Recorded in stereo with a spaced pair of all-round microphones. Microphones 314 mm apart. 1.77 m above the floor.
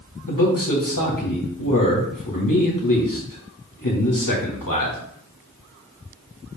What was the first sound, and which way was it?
A man speaking, 85° left.